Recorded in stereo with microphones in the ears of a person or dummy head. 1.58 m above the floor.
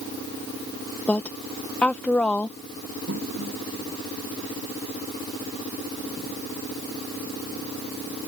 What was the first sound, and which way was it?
A woman speaking, 5° left (ahead or behind).